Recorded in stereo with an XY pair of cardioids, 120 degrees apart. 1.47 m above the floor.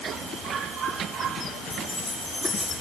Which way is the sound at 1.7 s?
15° left.